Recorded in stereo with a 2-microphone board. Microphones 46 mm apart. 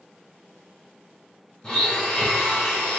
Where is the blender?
20° left (ahead or behind), 1.3 m.